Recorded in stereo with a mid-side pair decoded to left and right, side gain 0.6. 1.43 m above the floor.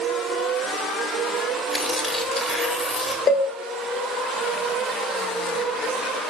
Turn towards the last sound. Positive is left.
turn(degrees=35)